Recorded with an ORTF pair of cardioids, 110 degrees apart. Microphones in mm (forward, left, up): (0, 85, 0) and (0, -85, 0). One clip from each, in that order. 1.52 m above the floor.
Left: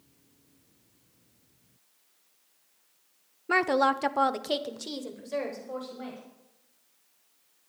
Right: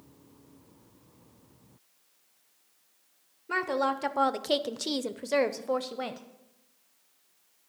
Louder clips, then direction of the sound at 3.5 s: Left 4 dB; 35° left.